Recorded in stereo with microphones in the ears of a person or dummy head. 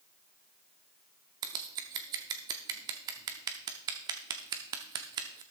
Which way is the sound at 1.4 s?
20° right (ahead or behind).